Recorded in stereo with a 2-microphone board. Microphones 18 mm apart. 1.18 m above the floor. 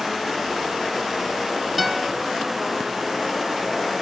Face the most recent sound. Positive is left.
turn(degrees=-10)  # may be behind; listen again after turning